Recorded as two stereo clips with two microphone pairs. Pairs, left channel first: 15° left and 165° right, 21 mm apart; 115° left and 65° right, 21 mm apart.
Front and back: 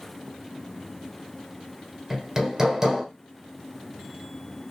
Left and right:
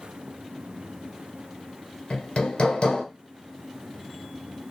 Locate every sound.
2.1 s hammering: 135° left, 1.5 m